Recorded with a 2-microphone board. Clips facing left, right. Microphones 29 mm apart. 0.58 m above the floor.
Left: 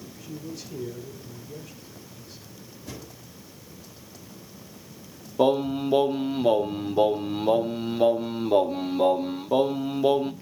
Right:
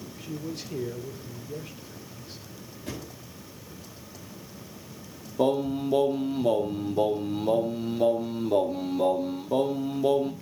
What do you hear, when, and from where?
0.2 s a man speaking: 50° right (ahead or behind), 2 m
2.9 s a thud: 65° right (ahead or behind), 8 m
5.4 s singing: 30° left (ahead or behind), 1.2 m